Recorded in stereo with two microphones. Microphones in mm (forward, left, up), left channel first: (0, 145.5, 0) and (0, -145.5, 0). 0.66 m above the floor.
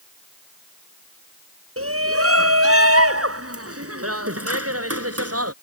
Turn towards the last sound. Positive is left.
turn(degrees=-60)  # may be behind; listen again after turning